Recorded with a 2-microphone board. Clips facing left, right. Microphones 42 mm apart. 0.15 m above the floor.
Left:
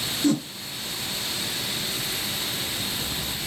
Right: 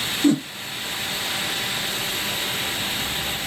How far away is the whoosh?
About 0.6 m.